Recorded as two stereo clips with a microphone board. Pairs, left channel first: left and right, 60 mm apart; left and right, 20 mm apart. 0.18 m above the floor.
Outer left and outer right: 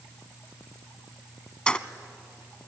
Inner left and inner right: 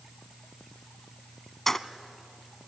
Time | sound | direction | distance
1.7 | keys jangling | 15° left (ahead or behind) | 0.8 m